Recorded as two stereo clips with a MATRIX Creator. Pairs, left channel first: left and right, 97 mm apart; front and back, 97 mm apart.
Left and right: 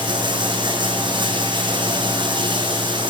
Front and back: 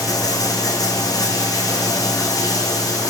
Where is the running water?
50° right, 5 m.